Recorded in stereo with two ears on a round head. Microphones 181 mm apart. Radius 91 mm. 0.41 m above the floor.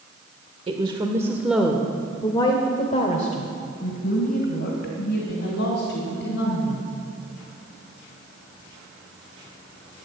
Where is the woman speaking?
30° right (ahead or behind), 1.1 m; by 6.8 s 65° left (ahead or behind), 3.5 m.